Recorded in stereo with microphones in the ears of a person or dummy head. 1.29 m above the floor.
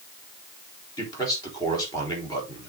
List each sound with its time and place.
1.0 s a man speaking: 20° left (ahead or behind), 3.5 m